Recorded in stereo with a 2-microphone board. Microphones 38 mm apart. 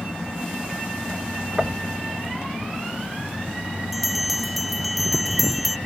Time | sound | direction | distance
1.6 | knocking | 25° right (ahead or behind) | ?
3.9 | a bell | centre (ahead or behind) | ?